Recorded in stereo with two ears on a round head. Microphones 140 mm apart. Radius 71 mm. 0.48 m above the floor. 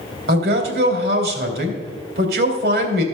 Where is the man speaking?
70° right (ahead or behind), 2.5 m.